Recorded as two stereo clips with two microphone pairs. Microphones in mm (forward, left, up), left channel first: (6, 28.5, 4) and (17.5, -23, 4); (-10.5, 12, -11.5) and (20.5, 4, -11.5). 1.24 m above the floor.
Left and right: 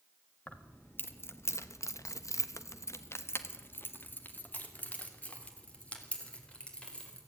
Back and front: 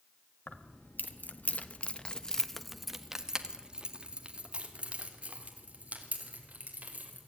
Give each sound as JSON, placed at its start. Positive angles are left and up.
{"t": 0.5, "sound": "keys jangling", "azimuth_deg": 160, "distance_m": 1.6}